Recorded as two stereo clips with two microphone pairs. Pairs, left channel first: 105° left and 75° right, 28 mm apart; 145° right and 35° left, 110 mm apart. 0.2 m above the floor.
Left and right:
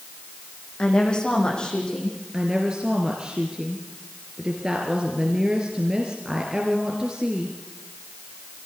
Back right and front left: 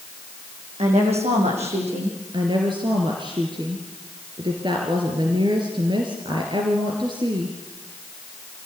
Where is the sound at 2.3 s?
5° right, 3 m.